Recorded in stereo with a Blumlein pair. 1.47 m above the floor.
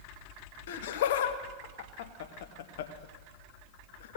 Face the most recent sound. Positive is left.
turn(degrees=55)